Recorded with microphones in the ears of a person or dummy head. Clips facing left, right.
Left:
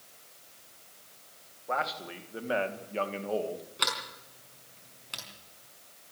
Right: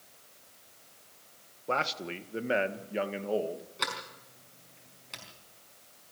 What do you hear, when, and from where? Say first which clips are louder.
1.7 s a man speaking: right 1 dB; 45° right (ahead or behind), 1.7 m; by 3.6 s 10° right (ahead or behind), 2 m
3.8 s a sliding door: left 1 dB; 5° left (ahead or behind), 5 m